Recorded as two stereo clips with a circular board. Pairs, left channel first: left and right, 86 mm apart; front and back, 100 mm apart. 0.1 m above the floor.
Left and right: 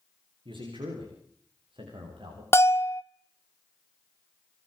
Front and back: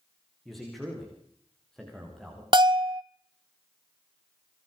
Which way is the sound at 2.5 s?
145° left.